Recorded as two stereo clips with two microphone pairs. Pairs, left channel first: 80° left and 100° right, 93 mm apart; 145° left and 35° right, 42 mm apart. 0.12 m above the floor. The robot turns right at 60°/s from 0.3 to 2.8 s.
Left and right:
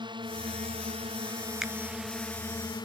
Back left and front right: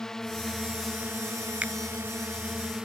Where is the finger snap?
20° right; by 1.7 s 15° right.